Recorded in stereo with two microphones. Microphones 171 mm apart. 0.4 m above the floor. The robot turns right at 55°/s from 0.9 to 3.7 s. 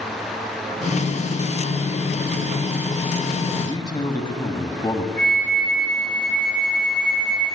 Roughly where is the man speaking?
Left.